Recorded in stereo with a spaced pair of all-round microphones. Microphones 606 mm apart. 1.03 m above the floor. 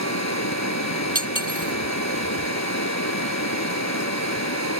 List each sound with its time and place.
0.0 s running water: 25° left (ahead or behind)
1.1 s cutlery clinking: 60° right (ahead or behind)